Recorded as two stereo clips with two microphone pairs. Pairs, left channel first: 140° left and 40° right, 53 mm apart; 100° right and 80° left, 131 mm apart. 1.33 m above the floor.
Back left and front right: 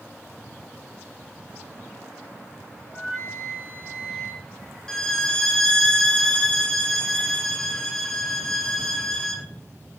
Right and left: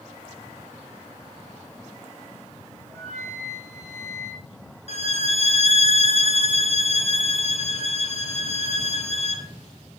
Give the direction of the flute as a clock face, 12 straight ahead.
7 o'clock.